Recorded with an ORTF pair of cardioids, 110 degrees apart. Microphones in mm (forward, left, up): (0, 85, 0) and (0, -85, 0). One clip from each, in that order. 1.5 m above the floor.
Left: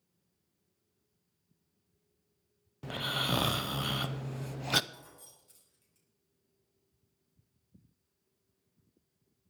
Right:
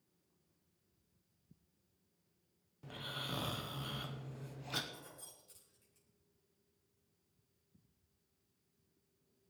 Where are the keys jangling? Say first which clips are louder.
Left 1 dB; 5° left, 8 m.